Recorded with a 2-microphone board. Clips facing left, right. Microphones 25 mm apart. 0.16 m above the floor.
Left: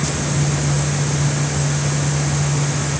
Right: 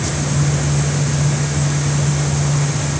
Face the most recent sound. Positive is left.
No sound to turn to.